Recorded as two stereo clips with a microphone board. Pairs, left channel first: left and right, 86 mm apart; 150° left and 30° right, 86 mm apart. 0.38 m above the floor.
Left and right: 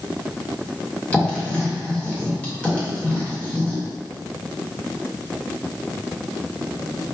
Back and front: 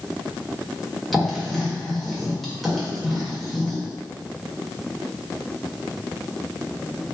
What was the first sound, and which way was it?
Writing, 65° left.